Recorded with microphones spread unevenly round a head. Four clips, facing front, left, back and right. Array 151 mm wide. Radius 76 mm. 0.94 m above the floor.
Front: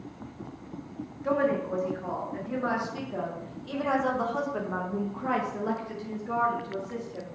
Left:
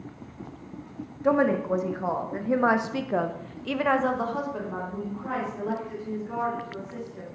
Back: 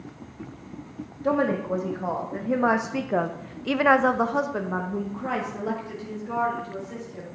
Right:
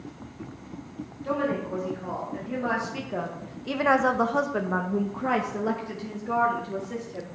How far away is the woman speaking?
About 1.9 m.